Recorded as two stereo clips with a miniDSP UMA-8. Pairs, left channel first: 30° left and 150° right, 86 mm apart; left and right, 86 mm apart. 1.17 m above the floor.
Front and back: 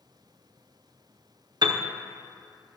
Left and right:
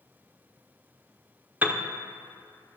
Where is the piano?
155° right, 0.9 m.